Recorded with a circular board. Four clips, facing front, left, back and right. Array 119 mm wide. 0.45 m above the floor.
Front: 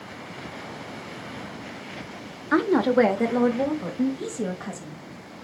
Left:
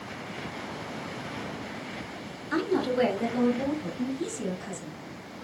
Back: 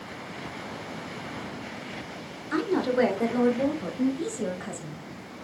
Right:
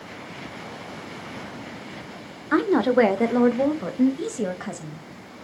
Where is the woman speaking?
50° right, 1.0 m; by 5.0 s 95° right, 2 m.